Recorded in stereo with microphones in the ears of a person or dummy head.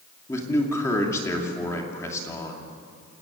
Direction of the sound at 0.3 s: 20° left (ahead or behind).